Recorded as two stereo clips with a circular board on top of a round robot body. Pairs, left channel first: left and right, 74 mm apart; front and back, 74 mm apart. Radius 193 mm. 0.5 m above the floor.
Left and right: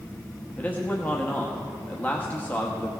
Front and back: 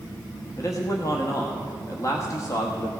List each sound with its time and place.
0.6 s a man speaking: 25° left, 1.2 m